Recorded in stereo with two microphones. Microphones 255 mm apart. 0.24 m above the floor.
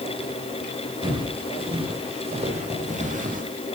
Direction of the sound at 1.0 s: 20° right (ahead or behind).